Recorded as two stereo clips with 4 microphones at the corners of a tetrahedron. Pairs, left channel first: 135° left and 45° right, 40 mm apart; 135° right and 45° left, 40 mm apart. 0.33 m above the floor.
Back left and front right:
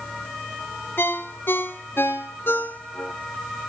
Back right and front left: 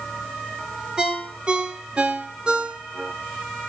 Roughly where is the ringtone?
Behind left.